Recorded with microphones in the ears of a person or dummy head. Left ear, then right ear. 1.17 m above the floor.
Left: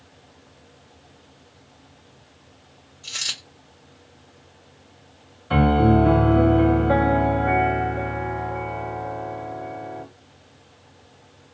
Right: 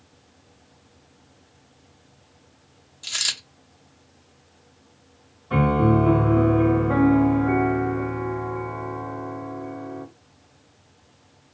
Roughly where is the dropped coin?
Right.